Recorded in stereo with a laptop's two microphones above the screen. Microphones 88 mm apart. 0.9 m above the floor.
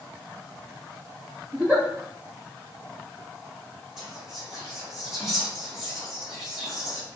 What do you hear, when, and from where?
1.5 s a giggle: 20° right (ahead or behind), 1.1 m
4.0 s whispering: 5° right (ahead or behind), 1.8 m